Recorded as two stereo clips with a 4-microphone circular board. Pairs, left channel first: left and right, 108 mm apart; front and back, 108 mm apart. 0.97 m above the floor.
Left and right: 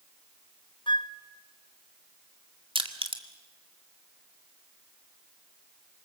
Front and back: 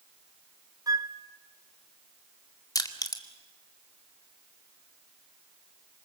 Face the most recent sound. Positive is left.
turn(degrees=-55)